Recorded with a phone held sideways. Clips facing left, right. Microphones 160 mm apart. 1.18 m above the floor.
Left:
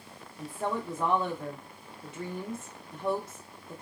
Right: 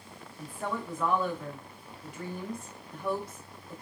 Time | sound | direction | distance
0.4 | a woman speaking | 20° left (ahead or behind) | 0.7 m